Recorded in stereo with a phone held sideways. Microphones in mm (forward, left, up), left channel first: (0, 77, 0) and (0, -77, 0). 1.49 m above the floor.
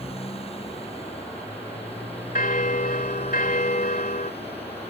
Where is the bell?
60° left (ahead or behind).